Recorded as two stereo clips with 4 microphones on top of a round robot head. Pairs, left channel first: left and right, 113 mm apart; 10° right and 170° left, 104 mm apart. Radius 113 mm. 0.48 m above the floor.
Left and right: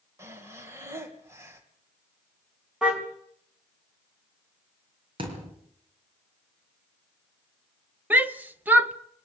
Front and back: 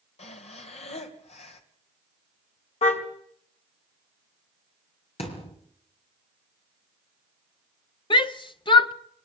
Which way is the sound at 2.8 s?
5° right.